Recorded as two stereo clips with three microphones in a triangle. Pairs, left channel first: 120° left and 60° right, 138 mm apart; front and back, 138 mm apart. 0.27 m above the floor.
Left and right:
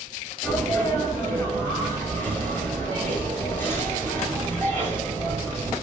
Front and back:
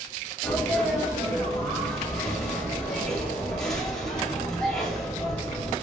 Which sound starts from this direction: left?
A sneeze, at 0.4 s.